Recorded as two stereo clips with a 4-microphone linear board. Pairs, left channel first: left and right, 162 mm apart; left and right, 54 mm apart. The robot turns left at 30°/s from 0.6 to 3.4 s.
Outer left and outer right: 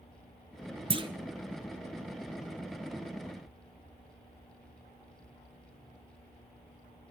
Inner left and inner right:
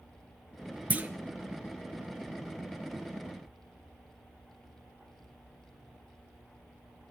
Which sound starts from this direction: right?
A clunk, at 0.9 s.